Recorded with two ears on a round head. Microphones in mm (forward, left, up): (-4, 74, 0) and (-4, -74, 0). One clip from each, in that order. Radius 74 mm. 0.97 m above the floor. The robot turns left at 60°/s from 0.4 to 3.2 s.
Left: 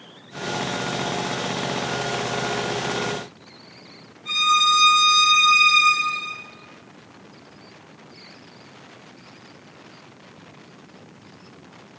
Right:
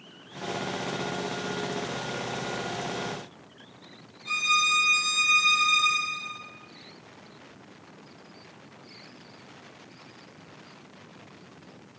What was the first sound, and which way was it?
A violin, 20° right (ahead or behind).